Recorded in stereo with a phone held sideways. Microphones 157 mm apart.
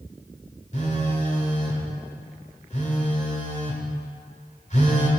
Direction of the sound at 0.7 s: 50° left (ahead or behind).